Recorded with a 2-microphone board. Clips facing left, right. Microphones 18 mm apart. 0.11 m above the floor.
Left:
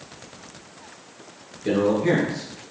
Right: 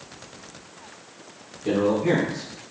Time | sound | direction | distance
1.6 | a man speaking | 35° left (ahead or behind) | 1.8 m